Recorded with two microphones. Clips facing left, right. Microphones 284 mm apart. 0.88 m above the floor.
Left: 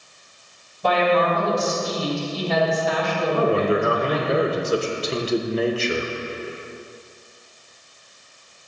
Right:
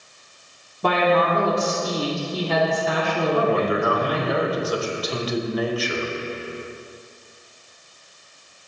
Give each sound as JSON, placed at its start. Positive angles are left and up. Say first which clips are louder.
{"t": 0.8, "sound": "a woman speaking", "louder": "even", "side_deg": -65, "distance_m": 1.8}
{"t": 3.3, "sound": "a man speaking", "louder": "left 3 dB", "side_deg": 30, "distance_m": 0.7}